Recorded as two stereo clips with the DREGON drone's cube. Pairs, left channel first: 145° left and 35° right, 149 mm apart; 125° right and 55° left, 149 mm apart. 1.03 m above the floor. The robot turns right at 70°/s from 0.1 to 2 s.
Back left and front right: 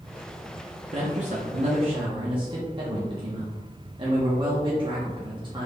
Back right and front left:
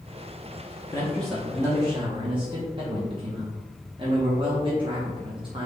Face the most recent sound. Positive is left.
turn(degrees=10)